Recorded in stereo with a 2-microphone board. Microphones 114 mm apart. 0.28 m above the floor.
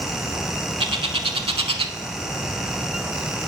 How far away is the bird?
About 0.6 m.